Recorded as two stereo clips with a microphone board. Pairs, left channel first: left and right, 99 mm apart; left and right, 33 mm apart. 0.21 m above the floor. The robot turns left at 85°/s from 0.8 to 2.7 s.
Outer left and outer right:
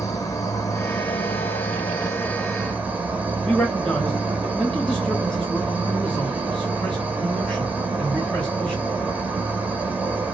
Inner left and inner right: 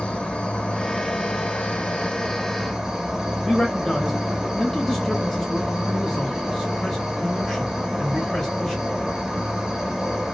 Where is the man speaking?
10° left (ahead or behind), 1.7 m.